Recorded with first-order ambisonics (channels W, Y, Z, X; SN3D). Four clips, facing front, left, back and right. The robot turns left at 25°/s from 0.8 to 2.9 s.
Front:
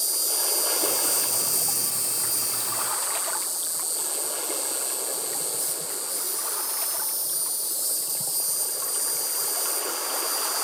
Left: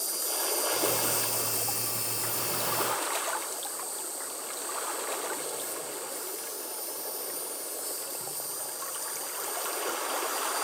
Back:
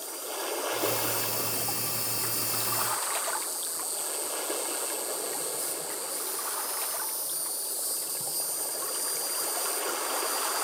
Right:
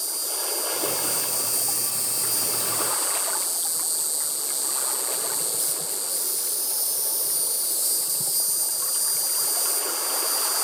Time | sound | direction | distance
0.0 | an insect | 20° right | 0.9 m